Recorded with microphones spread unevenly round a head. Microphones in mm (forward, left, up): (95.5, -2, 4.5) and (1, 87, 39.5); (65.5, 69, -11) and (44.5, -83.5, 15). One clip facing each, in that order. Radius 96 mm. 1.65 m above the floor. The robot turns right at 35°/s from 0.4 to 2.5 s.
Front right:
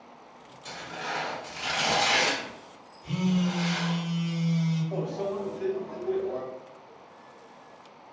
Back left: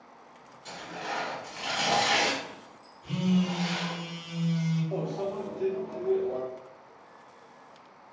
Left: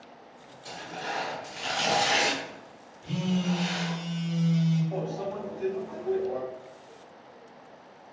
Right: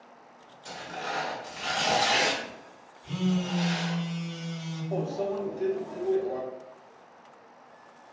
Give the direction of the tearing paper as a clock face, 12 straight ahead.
12 o'clock.